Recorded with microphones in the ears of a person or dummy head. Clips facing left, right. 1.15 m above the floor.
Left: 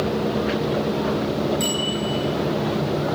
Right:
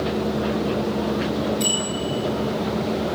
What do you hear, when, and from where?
1.6 s a bicycle bell: 25° left (ahead or behind), 7 m